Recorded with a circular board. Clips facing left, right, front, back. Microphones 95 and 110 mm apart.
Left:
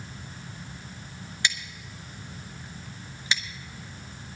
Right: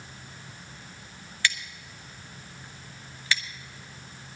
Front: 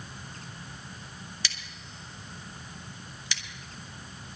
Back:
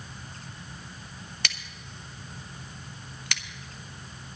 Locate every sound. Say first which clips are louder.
1.4 s scissors: right 2 dB, back 3 dB; 160° left, 1.0 m